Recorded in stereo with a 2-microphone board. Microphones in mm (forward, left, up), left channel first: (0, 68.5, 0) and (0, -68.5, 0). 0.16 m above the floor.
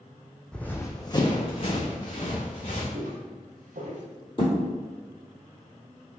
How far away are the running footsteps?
About 0.5 m.